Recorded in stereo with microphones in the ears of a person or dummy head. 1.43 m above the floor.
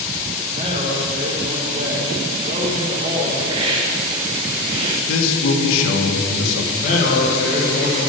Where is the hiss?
20° right (ahead or behind), 0.5 m.